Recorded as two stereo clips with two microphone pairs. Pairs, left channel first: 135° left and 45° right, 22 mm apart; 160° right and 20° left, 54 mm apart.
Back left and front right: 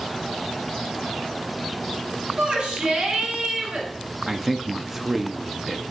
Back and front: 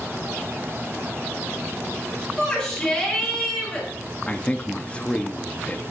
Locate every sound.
2.4 s a shout: 85° right, 4 m
4.3 s a man speaking: 115° right, 0.7 m